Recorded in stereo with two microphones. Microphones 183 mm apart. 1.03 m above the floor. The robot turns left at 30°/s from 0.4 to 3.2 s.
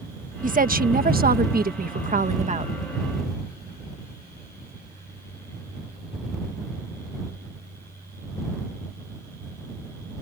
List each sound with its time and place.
0.4 s a woman speaking: 65° right; by 2.7 s 135° right